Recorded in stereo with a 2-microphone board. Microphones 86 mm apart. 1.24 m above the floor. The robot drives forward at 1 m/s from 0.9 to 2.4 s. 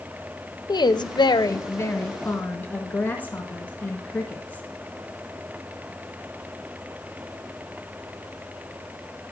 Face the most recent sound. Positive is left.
turn(degrees=20)  # may be behind; listen again after turning